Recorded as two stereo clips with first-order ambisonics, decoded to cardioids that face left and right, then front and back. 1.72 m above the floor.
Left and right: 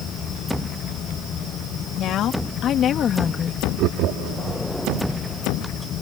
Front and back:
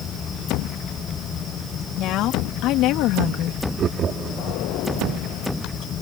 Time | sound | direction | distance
2.0 | a woman speaking | 40° left | ?
3.8 | laughter | 120° right | ?